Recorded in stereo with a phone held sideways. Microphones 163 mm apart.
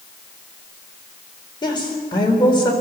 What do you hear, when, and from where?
1.6 s a woman speaking: 25° left (ahead or behind), 4 m